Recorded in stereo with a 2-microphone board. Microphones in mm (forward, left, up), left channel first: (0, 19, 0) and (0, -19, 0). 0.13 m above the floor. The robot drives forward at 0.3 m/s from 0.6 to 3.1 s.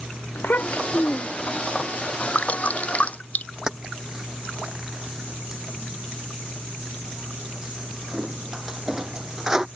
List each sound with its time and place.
0.3 s a child speaking: 65° left (ahead or behind)
2.4 s dripping: 45° left (ahead or behind); by 3.5 s 40° left (ahead or behind)
3.7 s keys jangling: 20° right (ahead or behind)